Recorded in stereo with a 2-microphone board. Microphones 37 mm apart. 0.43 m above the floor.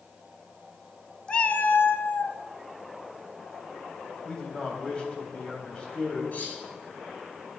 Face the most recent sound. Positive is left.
turn(degrees=45)  # may be behind; listen again after turning